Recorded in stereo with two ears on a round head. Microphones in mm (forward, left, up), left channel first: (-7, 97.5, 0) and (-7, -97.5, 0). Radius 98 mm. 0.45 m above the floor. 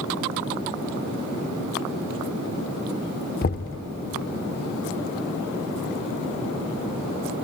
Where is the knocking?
45° left (ahead or behind), 0.7 m.